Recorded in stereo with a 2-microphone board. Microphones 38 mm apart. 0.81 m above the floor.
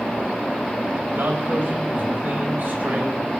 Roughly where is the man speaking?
Right.